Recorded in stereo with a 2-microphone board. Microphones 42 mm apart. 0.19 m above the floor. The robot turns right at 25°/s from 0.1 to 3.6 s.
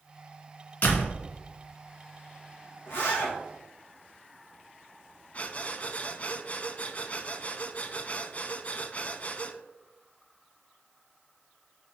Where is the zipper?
70° left (ahead or behind), 3 m; by 3.3 s 85° left, 3 m.